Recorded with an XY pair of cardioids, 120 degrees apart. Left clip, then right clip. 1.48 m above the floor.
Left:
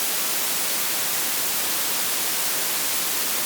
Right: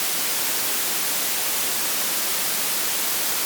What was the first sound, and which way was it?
Only background noise.